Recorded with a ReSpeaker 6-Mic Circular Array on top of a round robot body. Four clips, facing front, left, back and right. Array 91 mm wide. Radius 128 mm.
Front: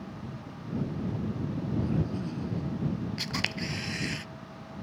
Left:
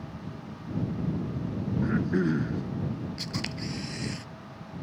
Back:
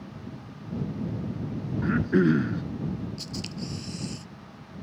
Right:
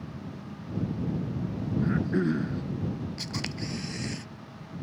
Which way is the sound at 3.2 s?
Straight ahead.